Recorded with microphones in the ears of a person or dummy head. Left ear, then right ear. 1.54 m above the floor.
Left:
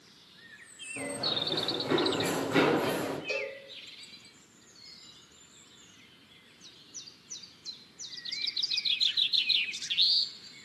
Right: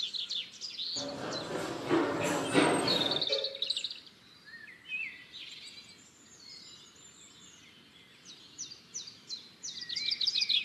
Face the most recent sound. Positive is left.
turn(degrees=15)  # may be behind; listen again after turning